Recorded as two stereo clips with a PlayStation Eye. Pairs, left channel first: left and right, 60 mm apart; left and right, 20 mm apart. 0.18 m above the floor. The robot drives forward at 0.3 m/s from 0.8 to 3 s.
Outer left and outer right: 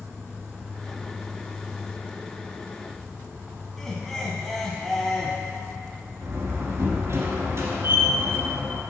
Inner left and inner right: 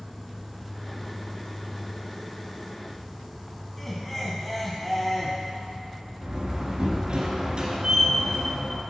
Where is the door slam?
55° right (ahead or behind), 1.6 m.